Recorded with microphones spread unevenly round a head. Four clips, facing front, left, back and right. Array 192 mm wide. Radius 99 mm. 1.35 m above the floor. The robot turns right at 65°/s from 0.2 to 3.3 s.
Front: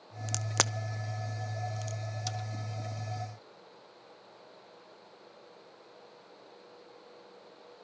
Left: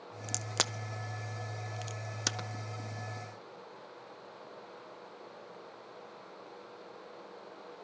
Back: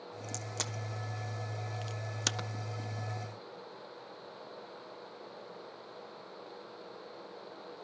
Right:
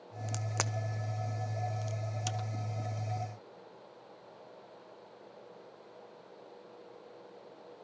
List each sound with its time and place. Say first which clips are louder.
0.3 s a crack: even, front 9 dB; 5° left, 0.6 m; by 2.5 s 150° left, 0.6 m